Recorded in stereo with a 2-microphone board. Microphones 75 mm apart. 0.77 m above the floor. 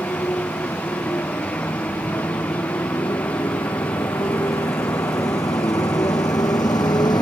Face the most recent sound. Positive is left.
turn(degrees=70)  # may be behind; listen again after turning